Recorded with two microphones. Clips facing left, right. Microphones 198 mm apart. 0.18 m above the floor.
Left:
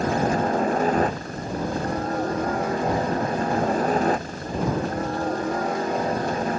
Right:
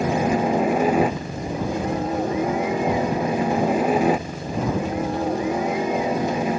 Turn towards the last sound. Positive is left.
turn(degrees=-10)  # may be behind; listen again after turning